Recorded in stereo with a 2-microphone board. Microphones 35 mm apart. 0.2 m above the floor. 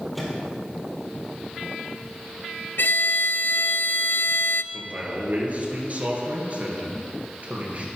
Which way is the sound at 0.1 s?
Centre (ahead or behind).